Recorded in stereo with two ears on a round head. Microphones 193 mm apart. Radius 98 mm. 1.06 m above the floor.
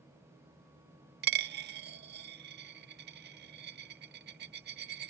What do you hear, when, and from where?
1.2 s a dropped coin: 50° right (ahead or behind)